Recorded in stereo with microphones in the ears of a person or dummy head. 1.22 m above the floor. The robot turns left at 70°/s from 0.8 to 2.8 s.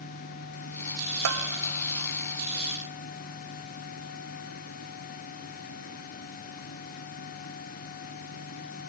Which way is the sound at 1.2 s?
85° right.